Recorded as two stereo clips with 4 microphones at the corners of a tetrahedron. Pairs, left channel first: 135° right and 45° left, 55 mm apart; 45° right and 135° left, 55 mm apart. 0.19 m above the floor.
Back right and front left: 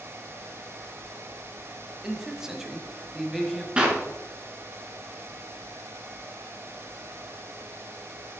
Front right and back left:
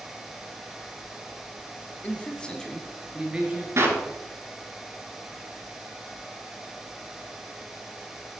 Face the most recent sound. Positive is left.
turn(degrees=115)